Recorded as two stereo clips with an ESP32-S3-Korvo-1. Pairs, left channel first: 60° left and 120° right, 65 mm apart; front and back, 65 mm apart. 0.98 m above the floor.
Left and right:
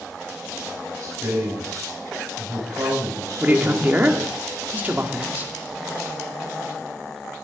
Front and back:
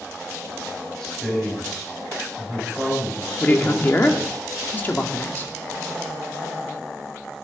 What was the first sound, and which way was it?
A man speaking, 75° right.